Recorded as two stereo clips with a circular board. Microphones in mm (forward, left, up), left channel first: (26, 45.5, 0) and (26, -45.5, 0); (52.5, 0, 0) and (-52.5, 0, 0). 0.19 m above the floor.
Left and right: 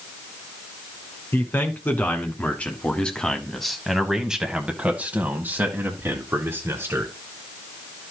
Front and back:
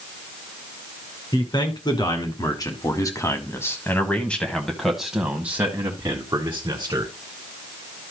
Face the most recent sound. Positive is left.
turn(degrees=-135)